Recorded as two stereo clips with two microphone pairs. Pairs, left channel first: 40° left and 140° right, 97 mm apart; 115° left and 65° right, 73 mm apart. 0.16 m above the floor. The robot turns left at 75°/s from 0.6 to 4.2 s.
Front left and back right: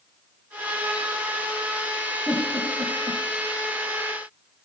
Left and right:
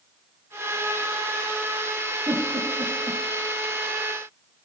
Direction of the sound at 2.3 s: 45° right.